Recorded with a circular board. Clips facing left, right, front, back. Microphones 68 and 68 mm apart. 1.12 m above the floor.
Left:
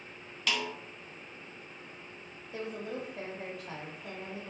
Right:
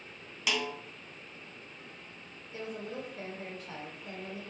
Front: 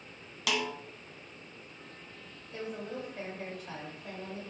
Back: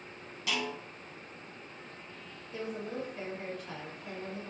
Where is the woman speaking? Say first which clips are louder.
Left 2 dB, back 1 dB; 75° left, 1.1 m.